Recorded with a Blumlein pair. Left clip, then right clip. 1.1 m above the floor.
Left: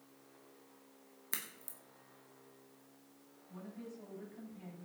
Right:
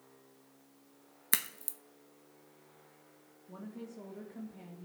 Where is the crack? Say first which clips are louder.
Right 9 dB; 60° right, 0.9 m.